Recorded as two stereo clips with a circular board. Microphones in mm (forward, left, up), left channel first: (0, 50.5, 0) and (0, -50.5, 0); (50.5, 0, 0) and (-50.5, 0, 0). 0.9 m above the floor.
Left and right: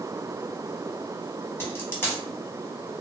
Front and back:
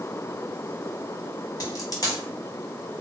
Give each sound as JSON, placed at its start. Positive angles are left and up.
{"t": 1.6, "sound": "a dropped coin", "azimuth_deg": 30, "distance_m": 0.9}